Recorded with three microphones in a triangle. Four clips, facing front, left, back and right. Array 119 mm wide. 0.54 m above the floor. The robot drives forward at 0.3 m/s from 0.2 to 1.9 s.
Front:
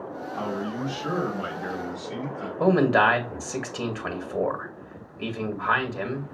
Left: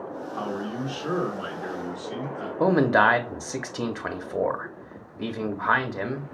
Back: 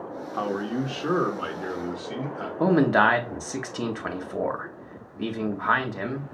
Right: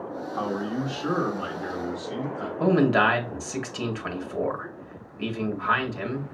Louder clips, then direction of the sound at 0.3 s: Right 3 dB, back 3 dB; 170° right.